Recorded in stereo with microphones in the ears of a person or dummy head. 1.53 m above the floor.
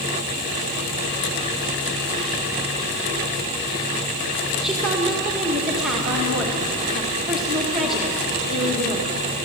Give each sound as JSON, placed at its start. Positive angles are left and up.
{"t": 4.6, "sound": "a woman speaking", "side_deg": -5, "distance_m": 1.9}